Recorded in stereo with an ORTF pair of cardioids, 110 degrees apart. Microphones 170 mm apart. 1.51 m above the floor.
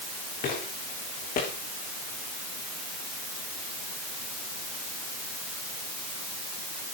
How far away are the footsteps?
About 8 m.